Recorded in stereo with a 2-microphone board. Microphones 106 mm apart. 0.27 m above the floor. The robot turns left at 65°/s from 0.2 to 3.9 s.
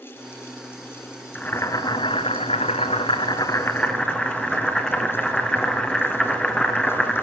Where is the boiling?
170° left, 1.9 m; by 7.2 s 5° left, 1.9 m.